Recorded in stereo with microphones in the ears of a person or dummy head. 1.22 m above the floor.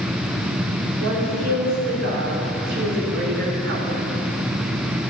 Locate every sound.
1.0 s a woman speaking: 70° right (ahead or behind), 4 m; by 4.0 s 55° right (ahead or behind), 1.6 m